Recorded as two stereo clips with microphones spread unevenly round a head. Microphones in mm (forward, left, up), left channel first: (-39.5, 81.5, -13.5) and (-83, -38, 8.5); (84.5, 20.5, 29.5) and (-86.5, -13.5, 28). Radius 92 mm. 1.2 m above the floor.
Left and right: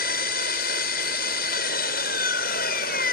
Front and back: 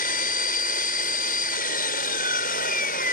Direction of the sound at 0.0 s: 55° left.